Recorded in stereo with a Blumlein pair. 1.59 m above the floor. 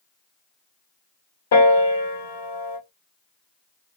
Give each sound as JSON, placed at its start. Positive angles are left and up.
{"t": 1.5, "sound": "a piano", "azimuth_deg": 55, "distance_m": 1.2}